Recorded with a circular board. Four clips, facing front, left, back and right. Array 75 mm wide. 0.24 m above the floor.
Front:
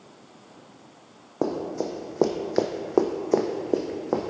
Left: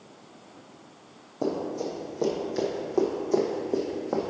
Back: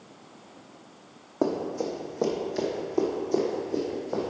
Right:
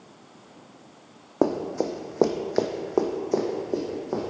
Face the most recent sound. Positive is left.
turn(degrees=10)